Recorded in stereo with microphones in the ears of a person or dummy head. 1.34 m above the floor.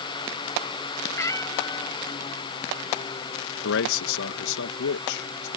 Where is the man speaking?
70° left (ahead or behind).